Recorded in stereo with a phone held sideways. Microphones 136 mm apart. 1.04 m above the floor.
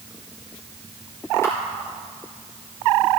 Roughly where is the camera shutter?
Centre.